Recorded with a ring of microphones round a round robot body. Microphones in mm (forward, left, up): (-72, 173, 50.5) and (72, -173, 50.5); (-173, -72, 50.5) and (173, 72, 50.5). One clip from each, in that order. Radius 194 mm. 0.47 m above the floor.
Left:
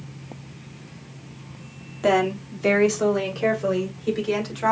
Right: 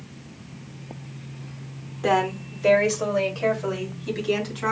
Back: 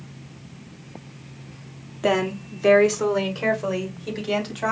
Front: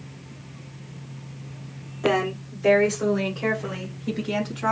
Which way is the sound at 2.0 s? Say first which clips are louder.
Left 2 dB, back 1 dB; 170° left.